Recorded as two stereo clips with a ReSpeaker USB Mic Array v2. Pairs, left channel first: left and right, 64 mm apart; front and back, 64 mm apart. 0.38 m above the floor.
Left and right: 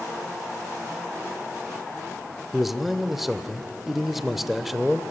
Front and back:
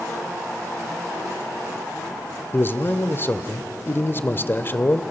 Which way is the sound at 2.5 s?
5° right.